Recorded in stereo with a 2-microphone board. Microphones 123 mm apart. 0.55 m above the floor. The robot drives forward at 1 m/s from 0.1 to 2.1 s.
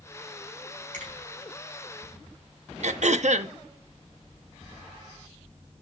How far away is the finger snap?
About 5 m.